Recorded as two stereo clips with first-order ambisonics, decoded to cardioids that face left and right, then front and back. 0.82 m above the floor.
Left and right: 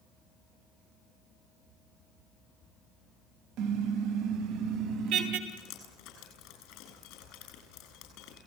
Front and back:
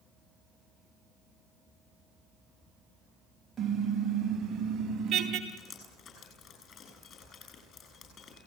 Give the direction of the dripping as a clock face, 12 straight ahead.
10 o'clock.